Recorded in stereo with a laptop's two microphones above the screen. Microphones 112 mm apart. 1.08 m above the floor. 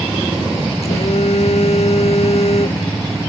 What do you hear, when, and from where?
0.8 s a phone buzzing: 65° left (ahead or behind)